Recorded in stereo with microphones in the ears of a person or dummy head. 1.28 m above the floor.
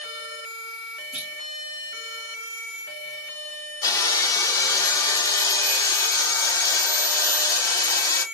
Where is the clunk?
5° right (ahead or behind), 1.2 m.